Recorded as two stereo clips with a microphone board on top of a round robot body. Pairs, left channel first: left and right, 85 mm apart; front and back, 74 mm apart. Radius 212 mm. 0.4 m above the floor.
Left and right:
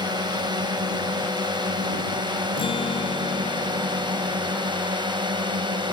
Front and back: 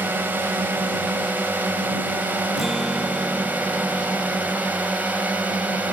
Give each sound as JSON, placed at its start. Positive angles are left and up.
{"t": 0.0, "sound": "a drone", "azimuth_deg": -120}
{"t": 2.6, "sound": "a guitar", "azimuth_deg": 90}